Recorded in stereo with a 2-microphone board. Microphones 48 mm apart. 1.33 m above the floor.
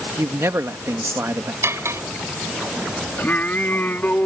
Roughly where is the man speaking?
Right.